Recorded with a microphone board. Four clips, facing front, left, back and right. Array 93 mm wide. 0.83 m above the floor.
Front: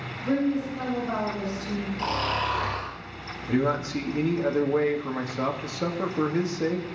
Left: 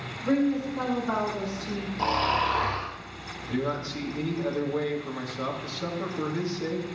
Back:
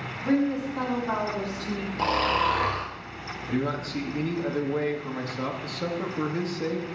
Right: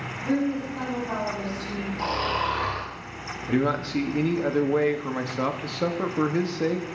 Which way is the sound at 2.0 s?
175° left.